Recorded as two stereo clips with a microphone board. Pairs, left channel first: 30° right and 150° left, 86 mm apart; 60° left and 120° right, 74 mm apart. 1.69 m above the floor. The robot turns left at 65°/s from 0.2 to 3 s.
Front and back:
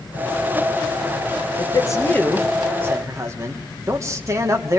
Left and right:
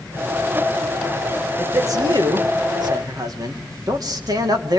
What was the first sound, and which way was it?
A man speaking, 60° right.